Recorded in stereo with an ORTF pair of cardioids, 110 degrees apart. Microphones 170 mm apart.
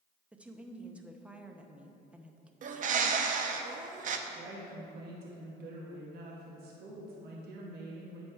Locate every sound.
0.3 s a woman speaking: 5° right, 0.7 m
2.6 s a bird: 50° right, 0.7 m
4.3 s a woman speaking: 70° right, 1.3 m